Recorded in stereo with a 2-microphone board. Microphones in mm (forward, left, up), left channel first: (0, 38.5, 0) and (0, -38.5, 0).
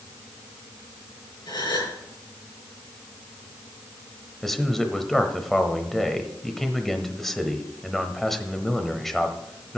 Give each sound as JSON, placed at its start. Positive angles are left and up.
{"t": 1.5, "sound": "a gasp", "side_deg": 75, "distance_m": 5.5}
{"t": 4.4, "sound": "a man speaking", "side_deg": 5, "distance_m": 0.9}